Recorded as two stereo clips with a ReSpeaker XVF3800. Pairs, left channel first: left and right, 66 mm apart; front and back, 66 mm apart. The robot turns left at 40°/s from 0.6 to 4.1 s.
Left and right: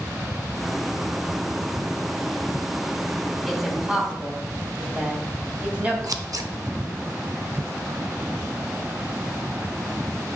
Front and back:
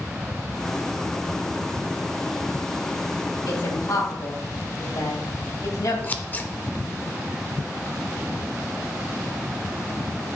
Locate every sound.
3.5 s a woman speaking: 5° left, 3 m; by 5.9 s 20° right, 3 m
6.0 s scissors: 65° right, 0.8 m